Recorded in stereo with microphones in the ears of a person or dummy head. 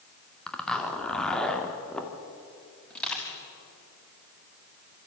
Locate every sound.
0.5 s a zipper: 5° left (ahead or behind), 2 m
2.9 s crushing: 5° left (ahead or behind), 5.5 m